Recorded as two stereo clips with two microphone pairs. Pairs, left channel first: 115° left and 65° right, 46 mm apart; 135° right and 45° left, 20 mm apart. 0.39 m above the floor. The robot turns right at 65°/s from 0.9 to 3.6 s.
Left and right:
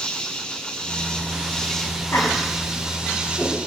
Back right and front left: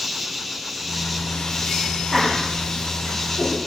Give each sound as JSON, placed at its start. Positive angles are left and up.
{"t": 0.0, "sound": "an insect", "azimuth_deg": 120, "distance_m": 1.1}
{"t": 2.1, "sound": "laughter", "azimuth_deg": 130, "distance_m": 3.5}